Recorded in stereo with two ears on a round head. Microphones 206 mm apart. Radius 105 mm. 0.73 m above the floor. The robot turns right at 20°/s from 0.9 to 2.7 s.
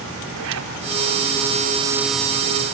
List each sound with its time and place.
0.3 s a zipper: 75° right (ahead or behind), 3 m